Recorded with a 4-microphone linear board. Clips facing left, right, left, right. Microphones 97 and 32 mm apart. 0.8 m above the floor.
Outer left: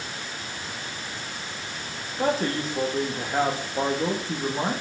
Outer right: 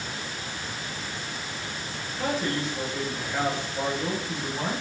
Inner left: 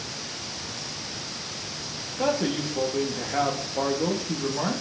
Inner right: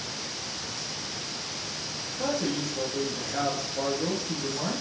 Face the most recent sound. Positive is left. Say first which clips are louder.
# outer left 3 dB, inner left 4 dB
turn(degrees=40)  # may be behind; listen again after turning